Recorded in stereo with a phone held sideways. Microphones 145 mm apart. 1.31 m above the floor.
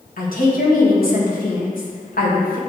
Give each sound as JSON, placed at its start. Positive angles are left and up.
{"t": 0.2, "sound": "a woman speaking", "side_deg": 80, "distance_m": 1.6}